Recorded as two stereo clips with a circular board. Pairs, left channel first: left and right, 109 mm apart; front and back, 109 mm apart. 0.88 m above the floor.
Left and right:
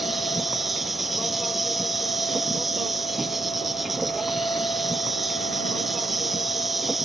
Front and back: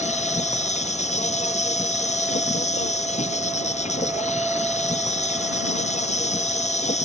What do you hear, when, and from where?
0.0 s an insect: straight ahead